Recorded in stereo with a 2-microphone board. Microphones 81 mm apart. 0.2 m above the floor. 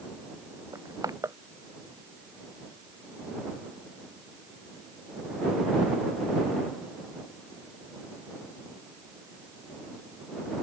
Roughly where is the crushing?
Right.